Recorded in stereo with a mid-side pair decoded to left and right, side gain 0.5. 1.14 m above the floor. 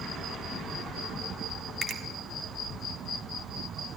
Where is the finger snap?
50° right, 1.5 m.